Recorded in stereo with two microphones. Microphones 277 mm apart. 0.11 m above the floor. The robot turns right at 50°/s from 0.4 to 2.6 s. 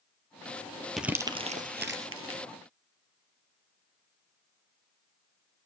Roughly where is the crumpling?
Centre.